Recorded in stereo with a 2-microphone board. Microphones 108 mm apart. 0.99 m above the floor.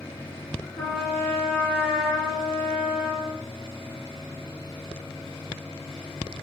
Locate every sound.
0.8 s a trumpet: 25° left (ahead or behind), 3.5 m